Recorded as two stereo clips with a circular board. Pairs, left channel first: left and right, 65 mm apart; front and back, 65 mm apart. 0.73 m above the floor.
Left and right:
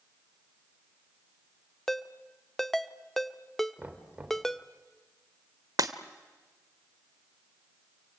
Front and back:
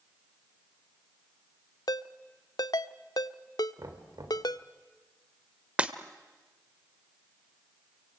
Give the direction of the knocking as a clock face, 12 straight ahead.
5 o'clock.